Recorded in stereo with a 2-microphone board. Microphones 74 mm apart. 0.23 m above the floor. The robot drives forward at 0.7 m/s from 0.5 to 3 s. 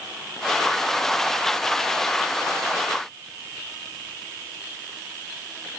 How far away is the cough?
No cough in this recording.